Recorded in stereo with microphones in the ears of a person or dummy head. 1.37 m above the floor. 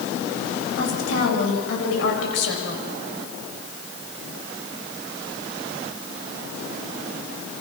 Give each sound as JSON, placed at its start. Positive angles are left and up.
{"t": 0.8, "sound": "a woman speaking", "side_deg": 80, "distance_m": 8.0}